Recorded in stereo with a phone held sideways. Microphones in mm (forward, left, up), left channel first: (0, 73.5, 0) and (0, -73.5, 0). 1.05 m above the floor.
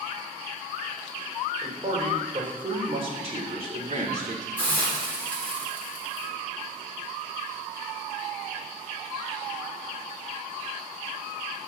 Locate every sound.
1.6 s a man speaking: 30° right (ahead or behind), 4.5 m; by 4.5 s 50° right (ahead or behind), 3 m
4.6 s a hiss: 10° left (ahead or behind), 3.5 m